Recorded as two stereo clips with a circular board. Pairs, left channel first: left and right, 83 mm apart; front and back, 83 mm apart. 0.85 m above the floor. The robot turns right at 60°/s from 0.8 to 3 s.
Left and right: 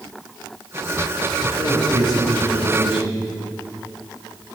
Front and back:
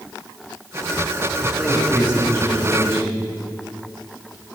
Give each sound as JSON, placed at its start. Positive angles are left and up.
{"t": 1.4, "sound": "a man speaking", "azimuth_deg": -105, "distance_m": 5.0}